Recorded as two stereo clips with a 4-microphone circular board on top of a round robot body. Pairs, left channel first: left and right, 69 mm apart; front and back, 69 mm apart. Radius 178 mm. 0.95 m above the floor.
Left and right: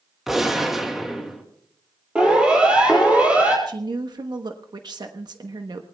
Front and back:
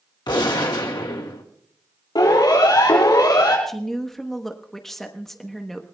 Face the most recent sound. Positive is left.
turn(degrees=-85)